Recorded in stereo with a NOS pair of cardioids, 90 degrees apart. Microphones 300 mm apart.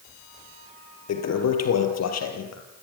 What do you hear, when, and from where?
1.1 s a toilet flushing: 60° left, 4 m